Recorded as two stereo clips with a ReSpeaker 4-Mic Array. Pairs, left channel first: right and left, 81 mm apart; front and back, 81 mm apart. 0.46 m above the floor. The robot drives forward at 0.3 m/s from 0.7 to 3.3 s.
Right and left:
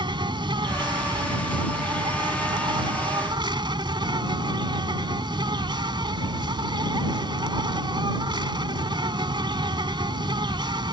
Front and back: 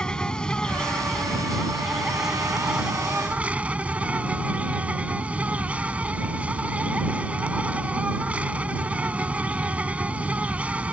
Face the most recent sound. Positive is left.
turn(degrees=110)